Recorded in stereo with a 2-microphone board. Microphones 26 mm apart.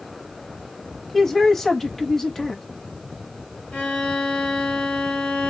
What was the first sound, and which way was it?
A man speaking, 15° left (ahead or behind).